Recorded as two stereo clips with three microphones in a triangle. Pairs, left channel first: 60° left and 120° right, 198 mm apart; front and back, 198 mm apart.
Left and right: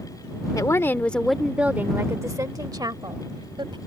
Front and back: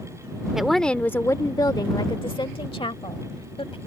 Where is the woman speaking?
95° left; by 3.8 s 55° right.